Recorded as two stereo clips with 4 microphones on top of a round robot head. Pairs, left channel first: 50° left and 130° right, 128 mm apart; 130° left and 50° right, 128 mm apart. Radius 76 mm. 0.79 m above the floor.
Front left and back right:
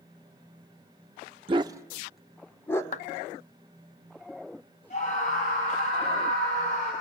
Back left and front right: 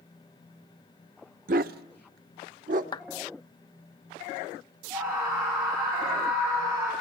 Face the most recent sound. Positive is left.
turn(degrees=15)